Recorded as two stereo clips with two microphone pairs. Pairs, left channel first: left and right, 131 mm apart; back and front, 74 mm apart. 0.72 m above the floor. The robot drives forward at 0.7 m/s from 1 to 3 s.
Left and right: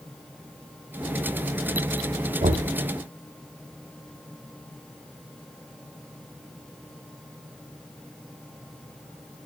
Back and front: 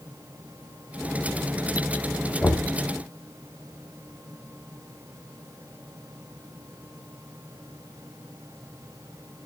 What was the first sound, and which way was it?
Knocking, 110° right.